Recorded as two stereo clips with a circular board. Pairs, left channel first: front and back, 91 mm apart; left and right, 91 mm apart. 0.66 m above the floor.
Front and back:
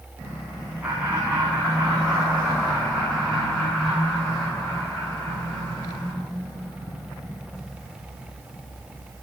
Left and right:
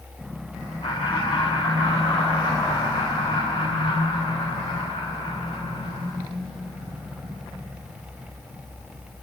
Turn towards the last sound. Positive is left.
turn(degrees=75)